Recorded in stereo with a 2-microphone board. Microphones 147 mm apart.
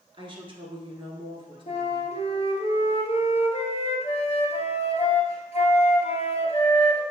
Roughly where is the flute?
Left.